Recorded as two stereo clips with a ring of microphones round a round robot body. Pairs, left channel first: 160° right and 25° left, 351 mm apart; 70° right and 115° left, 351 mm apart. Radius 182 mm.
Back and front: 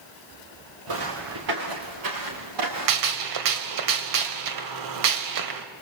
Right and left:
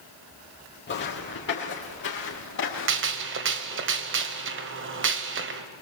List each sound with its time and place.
0.9 s footsteps: 5° right, 4.5 m; by 3.2 s 10° right, 6 m
2.9 s a gunshot: 55° left, 1.7 m